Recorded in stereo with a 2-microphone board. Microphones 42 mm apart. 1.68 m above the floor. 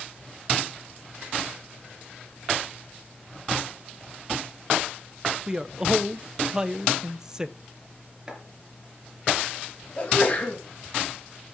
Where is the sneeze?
35° left (ahead or behind), 3 m.